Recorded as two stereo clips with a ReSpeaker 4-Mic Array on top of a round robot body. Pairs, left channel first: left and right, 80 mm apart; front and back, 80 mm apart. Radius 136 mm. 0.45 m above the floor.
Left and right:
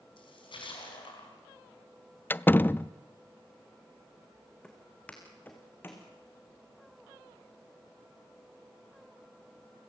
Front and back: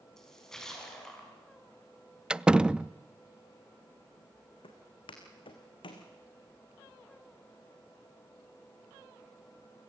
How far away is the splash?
About 5 m.